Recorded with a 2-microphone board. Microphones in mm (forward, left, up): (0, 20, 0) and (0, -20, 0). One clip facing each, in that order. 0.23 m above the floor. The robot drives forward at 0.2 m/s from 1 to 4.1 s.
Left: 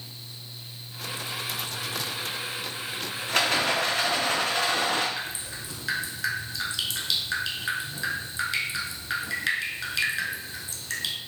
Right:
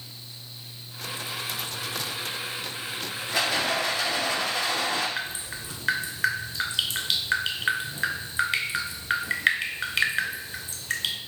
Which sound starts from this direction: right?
Dripping, at 5.2 s.